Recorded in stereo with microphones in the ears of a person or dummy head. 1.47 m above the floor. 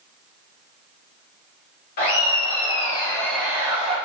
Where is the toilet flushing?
I don't hear a toilet flushing.